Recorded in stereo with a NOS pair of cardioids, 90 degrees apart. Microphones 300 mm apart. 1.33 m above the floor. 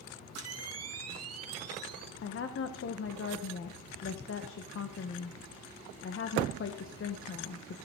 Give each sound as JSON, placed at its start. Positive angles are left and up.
{"t": 0.3, "sound": "a camera shutter", "azimuth_deg": -55, "distance_m": 1.9}
{"t": 2.2, "sound": "a woman speaking", "azimuth_deg": 45, "distance_m": 1.2}